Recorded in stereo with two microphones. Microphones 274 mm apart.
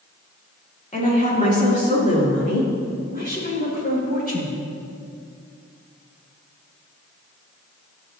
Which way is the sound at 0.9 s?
25° left (ahead or behind).